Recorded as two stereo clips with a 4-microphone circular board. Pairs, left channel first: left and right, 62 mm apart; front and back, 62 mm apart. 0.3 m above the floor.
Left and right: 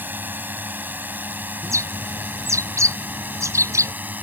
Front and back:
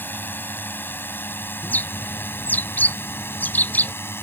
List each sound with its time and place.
0.0 s a drone: 45° right; by 4.2 s 35° right
1.6 s a bird: 60° right